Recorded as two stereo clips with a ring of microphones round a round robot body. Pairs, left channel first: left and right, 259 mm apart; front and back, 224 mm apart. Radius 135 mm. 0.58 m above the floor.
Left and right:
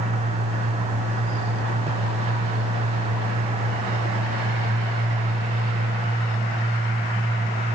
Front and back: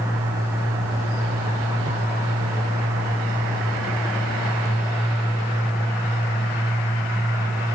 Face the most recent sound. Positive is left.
No sound to turn to.